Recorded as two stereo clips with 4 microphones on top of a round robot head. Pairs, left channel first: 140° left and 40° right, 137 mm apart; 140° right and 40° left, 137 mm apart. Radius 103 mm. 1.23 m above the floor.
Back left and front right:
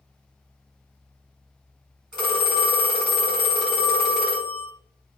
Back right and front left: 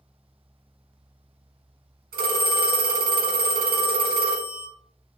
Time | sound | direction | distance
2.1 | a phone ringing | 45° left | 1.4 m